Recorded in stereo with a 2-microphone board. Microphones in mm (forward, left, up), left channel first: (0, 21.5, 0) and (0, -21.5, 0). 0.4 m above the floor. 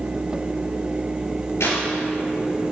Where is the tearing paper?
80° left, 2.5 m.